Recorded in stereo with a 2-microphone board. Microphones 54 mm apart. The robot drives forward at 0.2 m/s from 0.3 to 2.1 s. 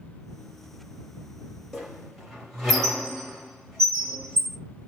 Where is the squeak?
Centre (ahead or behind), 1.2 m.